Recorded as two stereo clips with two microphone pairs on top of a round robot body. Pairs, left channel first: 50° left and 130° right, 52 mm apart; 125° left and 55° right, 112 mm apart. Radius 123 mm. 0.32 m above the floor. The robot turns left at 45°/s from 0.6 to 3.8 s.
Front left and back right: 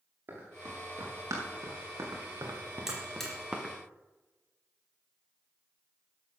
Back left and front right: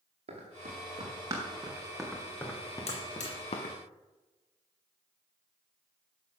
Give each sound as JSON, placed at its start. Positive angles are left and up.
{"t": 0.3, "sound": "running footsteps", "azimuth_deg": -85, "distance_m": 5.0}
{"t": 2.9, "sound": "a buzzer", "azimuth_deg": 150, "distance_m": 3.5}